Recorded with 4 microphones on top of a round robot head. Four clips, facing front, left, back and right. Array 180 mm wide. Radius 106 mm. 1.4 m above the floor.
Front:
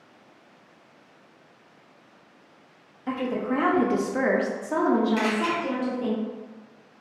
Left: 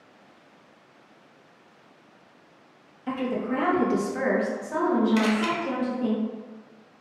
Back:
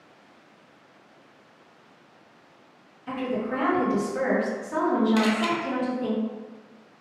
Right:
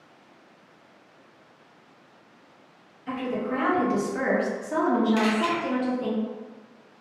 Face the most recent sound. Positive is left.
turn(degrees=140)